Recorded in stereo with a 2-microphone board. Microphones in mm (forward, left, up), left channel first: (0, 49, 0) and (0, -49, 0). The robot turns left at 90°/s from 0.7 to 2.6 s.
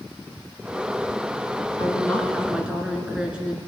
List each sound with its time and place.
1.8 s a woman speaking: 60° left, 1.8 m; by 3.6 s 15° right, 1.8 m